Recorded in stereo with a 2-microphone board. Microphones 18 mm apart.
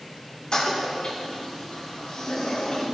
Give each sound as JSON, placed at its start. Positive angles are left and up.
{"t": 0.5, "sound": "a toilet flushing", "side_deg": 50, "distance_m": 5.0}